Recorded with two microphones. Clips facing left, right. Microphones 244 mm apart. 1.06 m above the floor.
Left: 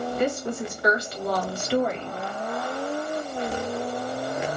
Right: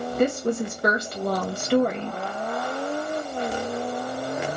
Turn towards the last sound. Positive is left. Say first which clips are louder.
# right 6 dB
turn(degrees=-50)  # may be behind; listen again after turning